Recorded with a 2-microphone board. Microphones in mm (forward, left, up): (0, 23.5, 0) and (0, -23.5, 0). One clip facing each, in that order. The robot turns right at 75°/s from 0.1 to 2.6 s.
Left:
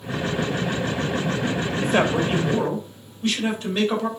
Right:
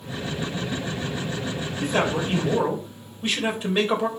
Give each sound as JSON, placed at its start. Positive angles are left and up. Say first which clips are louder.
{"t": 1.8, "sound": "a man speaking", "louder": "left 2 dB", "azimuth_deg": 135, "distance_m": 3.0}